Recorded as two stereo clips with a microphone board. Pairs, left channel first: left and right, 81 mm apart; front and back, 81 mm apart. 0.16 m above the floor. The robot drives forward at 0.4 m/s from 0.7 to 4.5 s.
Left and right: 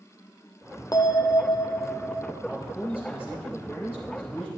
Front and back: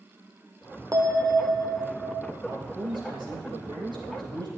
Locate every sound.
0.9 s a bell: 130° left, 1.1 m; by 2.3 s 145° left, 1.5 m
2.4 s a man speaking: 170° right, 5 m